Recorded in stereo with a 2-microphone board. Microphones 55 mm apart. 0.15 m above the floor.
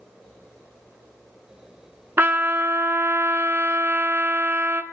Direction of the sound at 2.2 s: 40° right (ahead or behind).